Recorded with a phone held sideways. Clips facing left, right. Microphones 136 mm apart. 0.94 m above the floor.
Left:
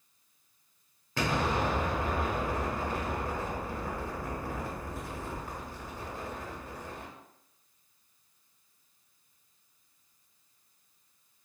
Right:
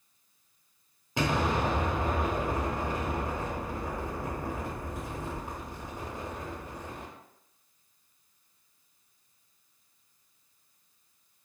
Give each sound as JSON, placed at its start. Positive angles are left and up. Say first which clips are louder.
{"t": 1.2, "sound": "an explosion", "louder": "right 2 dB", "side_deg": -20, "distance_m": 0.7}